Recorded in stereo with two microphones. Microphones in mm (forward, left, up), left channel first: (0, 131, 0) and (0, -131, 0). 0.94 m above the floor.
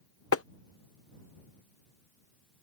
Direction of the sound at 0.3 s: 60° left (ahead or behind).